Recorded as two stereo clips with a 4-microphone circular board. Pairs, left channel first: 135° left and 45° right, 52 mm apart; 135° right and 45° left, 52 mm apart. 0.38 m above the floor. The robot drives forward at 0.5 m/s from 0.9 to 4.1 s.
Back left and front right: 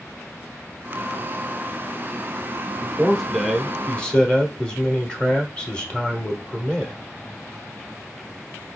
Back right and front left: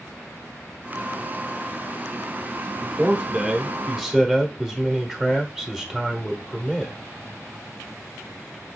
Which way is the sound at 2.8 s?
30° left.